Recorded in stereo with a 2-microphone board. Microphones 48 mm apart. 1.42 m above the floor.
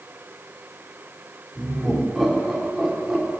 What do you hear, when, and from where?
1.6 s laughter: centre (ahead or behind), 3.5 m